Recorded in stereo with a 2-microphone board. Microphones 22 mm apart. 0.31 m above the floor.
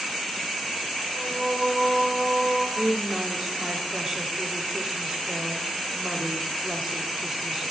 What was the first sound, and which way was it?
Singing, 80° right.